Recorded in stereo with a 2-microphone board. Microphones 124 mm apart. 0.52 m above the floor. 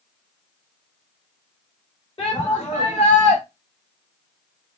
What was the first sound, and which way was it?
A shout, 45° left (ahead or behind).